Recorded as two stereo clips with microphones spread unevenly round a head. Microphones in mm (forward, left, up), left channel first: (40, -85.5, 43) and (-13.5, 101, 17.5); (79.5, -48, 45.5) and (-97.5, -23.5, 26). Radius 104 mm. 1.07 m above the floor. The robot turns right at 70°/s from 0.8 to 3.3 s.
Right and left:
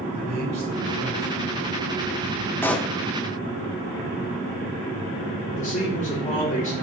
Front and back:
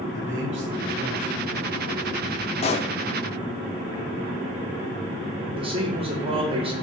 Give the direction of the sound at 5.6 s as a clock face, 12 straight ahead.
4 o'clock.